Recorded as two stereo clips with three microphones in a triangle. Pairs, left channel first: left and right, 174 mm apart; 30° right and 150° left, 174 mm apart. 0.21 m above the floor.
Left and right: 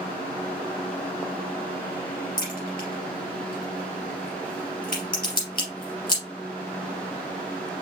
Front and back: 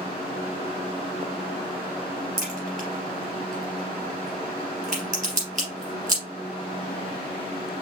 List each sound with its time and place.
2.4 s a crack: 115° left, 3 m